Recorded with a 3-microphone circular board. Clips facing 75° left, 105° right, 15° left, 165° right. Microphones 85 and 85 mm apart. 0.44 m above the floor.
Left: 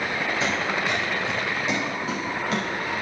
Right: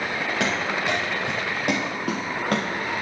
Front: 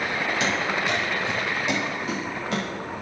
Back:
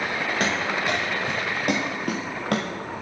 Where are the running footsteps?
120° right, 7 m; by 2.9 s 145° right, 4.5 m.